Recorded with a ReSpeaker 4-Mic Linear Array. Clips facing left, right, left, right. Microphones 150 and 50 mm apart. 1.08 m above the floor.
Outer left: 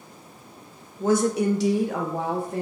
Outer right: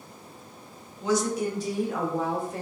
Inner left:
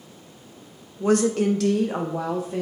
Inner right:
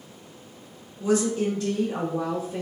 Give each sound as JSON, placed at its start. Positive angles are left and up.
{"t": 1.0, "sound": "a woman speaking", "side_deg": 45, "distance_m": 0.5}